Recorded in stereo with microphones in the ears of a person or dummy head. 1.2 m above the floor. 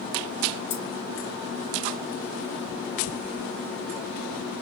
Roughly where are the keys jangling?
Left.